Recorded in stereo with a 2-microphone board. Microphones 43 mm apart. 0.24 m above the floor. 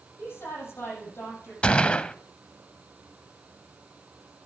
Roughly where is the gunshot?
Left.